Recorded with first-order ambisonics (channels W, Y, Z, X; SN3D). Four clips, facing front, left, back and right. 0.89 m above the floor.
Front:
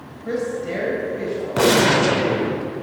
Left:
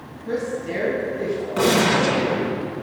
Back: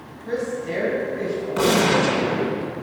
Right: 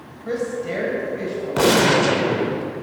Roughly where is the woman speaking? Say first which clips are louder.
Right 1 dB, front 2 dB; ahead right.